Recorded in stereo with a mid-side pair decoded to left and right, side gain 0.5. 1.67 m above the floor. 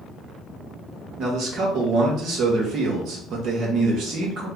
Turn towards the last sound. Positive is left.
turn(degrees=-70)